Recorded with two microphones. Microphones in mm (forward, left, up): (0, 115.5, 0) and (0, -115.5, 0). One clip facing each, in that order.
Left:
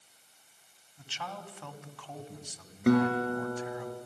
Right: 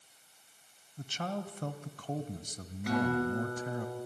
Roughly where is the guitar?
Left.